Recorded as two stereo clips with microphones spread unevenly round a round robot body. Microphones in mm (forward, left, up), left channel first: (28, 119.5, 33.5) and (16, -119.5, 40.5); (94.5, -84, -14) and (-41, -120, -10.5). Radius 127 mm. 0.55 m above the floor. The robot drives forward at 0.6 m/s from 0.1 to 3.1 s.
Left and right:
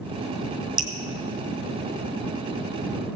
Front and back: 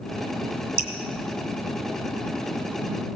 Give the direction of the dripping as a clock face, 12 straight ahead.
6 o'clock.